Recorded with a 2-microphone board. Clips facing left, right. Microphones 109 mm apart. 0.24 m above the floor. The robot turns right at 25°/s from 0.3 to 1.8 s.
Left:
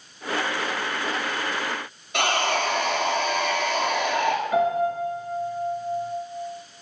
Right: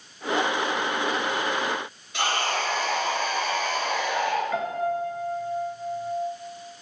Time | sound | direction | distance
2.1 | sawing | 65° left (ahead or behind) | 3.5 m
4.5 | a piano | 15° left (ahead or behind) | 2.5 m